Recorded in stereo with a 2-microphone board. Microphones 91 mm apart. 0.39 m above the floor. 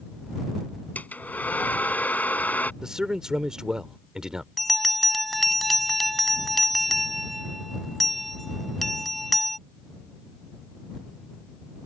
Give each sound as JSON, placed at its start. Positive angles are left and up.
{"t": 0.9, "sound": "a hair dryer", "side_deg": 20}
{"t": 2.8, "sound": "a man speaking", "side_deg": -10}
{"t": 4.6, "sound": "a bell", "side_deg": 0}